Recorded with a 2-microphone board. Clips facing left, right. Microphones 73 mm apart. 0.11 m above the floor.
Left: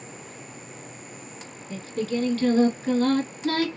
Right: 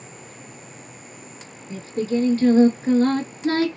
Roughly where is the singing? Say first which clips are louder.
Right 4 dB; right.